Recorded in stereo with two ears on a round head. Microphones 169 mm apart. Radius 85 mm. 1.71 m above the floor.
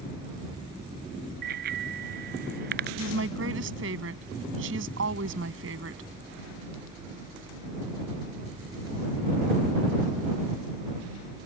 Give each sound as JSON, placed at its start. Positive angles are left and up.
{"t": 1.4, "sound": "a bicycle bell", "side_deg": -50}
{"t": 3.0, "sound": "a woman speaking", "side_deg": -70}